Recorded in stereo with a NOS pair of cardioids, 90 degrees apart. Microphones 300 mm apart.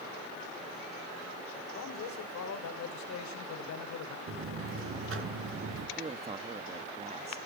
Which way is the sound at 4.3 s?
45° right.